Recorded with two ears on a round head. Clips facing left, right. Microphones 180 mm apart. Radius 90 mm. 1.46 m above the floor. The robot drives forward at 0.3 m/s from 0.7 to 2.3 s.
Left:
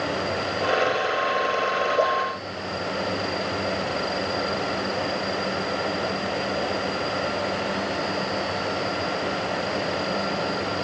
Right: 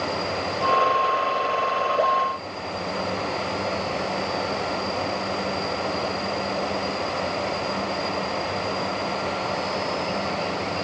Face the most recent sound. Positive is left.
No sound to turn to.